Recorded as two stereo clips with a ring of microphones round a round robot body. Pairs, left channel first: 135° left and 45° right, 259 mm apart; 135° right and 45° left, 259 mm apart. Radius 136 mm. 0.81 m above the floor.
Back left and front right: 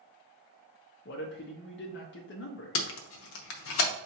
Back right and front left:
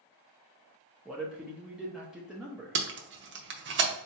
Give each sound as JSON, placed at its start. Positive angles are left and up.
{"t": 1.1, "sound": "a man speaking", "azimuth_deg": 130, "distance_m": 0.7}
{"t": 2.8, "sound": "tape being pulled", "azimuth_deg": 95, "distance_m": 0.7}